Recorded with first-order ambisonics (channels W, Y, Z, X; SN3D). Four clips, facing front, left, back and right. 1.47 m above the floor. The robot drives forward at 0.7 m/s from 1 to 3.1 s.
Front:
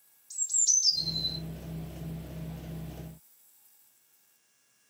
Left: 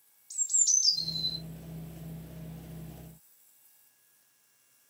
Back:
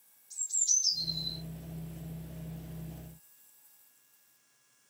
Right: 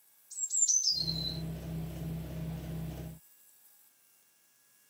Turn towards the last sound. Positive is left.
turn(degrees=80)